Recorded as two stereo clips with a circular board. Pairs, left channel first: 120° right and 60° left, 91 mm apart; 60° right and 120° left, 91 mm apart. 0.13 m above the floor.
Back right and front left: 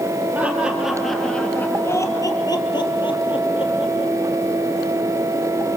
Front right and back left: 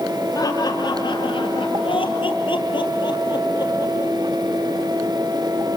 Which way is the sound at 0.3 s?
15° right.